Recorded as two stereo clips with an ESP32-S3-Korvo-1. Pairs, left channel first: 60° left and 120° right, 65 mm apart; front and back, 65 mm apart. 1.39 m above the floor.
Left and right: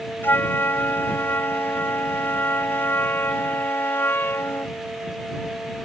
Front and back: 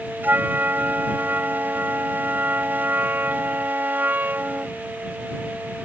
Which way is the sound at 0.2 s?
120° left.